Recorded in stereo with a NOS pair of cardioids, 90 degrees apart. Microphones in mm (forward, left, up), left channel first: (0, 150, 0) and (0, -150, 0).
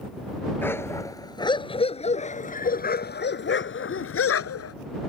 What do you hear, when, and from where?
0.6 s a dog barking: 5° left; by 4.8 s 55° left